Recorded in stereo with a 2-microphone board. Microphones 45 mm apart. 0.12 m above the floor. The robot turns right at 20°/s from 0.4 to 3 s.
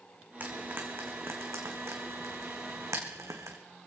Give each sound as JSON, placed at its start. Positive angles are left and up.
{"t": 0.4, "sound": "frying", "side_deg": -40, "distance_m": 3.0}